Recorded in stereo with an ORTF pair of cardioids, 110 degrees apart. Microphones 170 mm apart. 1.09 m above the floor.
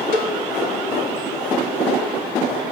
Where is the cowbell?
65° left, 1.3 m.